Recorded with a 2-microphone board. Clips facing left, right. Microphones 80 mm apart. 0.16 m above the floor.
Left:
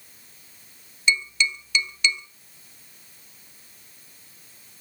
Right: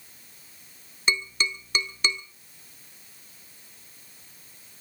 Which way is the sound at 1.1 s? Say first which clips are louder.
Left 3 dB; 40° right (ahead or behind).